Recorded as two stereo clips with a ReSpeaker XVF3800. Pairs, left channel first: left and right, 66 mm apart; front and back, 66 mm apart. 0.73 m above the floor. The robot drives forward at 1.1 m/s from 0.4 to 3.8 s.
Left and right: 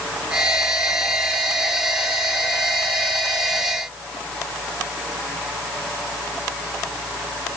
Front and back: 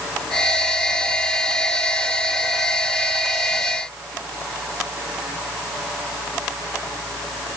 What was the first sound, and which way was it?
Only background noise.